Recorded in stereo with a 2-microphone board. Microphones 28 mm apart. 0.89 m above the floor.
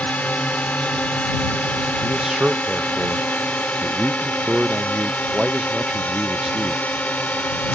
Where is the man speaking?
20° right (ahead or behind).